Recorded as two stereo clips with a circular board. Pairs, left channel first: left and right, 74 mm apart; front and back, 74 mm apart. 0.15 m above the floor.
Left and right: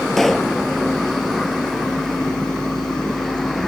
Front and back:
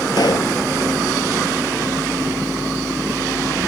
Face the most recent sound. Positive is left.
turn(degrees=5)